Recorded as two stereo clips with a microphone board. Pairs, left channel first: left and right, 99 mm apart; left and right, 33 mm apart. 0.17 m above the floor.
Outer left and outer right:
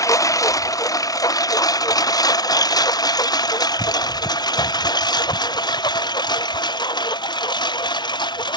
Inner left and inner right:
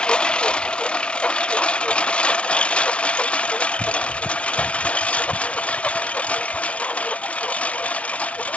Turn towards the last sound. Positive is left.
turn(degrees=50)  # may be behind; listen again after turning